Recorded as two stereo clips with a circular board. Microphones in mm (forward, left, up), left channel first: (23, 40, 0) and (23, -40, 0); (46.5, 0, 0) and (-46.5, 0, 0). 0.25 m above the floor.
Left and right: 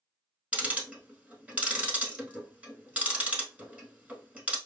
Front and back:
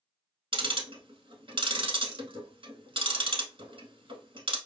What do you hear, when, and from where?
0.5 s ticking: 160° right, 0.7 m